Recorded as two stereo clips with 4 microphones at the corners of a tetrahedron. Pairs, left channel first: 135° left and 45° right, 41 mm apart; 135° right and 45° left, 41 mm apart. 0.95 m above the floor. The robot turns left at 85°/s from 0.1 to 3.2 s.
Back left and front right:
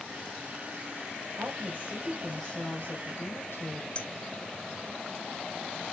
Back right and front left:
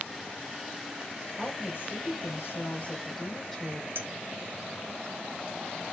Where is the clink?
75° left, 1.0 m.